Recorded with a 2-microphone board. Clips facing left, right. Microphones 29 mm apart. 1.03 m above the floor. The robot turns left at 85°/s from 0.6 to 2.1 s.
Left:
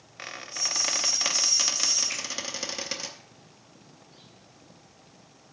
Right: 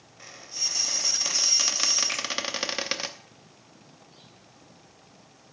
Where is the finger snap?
65° right (ahead or behind), 5 m.